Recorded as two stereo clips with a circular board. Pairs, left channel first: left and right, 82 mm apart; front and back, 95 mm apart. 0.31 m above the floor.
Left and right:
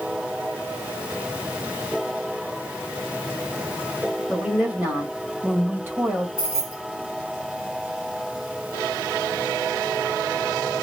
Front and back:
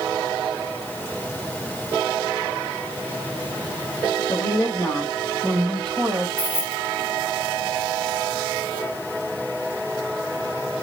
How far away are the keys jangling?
About 1.7 m.